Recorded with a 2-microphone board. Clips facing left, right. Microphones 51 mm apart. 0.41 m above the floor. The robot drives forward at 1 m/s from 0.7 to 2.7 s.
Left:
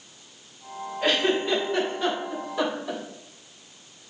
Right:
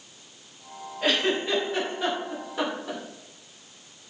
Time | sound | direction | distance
1.0 | a giggle | 5° right (ahead or behind) | 2.5 m